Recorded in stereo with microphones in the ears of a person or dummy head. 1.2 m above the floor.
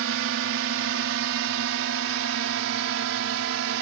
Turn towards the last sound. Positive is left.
turn(degrees=-70)  # may be behind; listen again after turning